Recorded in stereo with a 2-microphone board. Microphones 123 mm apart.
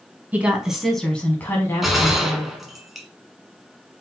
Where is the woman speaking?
15° right (ahead or behind), 1.2 m; by 2.5 s 40° left (ahead or behind), 1.5 m.